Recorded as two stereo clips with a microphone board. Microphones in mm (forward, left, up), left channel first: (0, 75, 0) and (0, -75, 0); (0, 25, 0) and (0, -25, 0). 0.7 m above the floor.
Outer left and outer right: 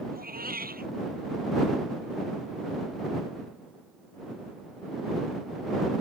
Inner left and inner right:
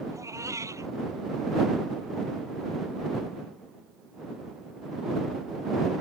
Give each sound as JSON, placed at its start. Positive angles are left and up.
{"t": 0.1, "sound": "a cat meowing", "side_deg": -80}